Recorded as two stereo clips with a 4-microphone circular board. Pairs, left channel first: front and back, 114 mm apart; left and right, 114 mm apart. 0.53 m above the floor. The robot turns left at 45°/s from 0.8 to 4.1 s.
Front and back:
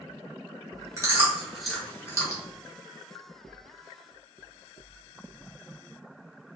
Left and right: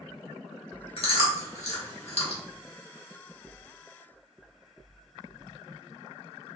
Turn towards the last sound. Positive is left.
turn(degrees=-20)